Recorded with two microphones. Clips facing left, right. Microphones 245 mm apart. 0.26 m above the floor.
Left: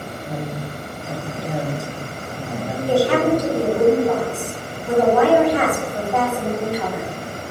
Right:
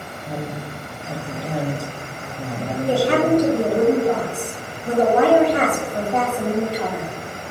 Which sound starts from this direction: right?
A woman speaking, at 2.9 s.